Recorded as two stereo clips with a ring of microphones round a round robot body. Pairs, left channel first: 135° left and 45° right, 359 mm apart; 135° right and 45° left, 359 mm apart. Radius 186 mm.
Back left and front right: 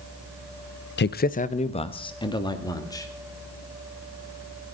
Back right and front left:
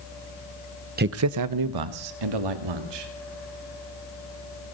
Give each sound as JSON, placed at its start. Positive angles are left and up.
{"t": 1.0, "sound": "a man speaking", "azimuth_deg": 95, "distance_m": 0.7}